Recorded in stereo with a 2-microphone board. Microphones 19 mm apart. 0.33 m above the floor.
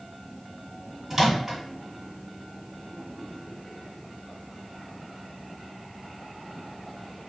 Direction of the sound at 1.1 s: 20° right (ahead or behind).